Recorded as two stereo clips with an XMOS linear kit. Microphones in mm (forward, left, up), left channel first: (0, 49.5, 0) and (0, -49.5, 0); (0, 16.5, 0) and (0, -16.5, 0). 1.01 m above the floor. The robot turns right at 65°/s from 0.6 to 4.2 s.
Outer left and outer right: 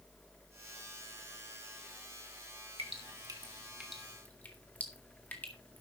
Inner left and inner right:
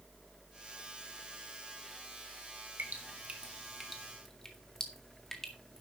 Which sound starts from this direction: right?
Dripping, at 2.8 s.